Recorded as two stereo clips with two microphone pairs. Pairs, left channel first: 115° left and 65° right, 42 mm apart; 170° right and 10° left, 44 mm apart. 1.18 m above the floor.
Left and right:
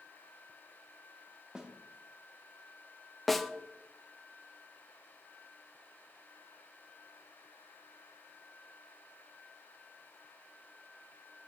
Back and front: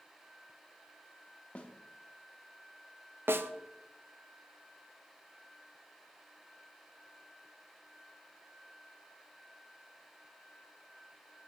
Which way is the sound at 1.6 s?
130° right.